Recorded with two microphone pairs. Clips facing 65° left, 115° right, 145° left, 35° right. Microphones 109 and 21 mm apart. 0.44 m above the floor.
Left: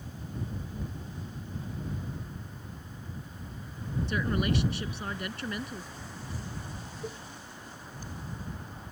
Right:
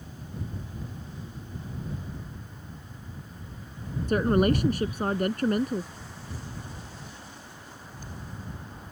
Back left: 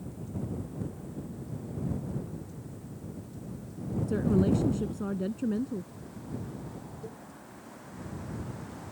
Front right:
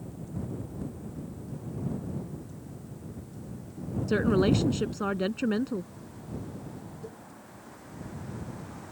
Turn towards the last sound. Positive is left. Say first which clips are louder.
# left 7 dB, even
turn(degrees=55)